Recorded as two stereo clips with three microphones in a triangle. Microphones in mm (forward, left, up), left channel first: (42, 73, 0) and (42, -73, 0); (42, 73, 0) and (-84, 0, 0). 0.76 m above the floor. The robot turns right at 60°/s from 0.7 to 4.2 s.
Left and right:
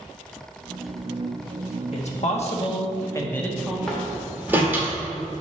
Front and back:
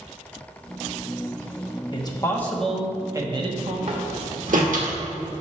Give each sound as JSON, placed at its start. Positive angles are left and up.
{"t": 1.9, "sound": "a man speaking", "azimuth_deg": 75, "distance_m": 1.2}
{"t": 3.9, "sound": "a door slam", "azimuth_deg": 175, "distance_m": 1.4}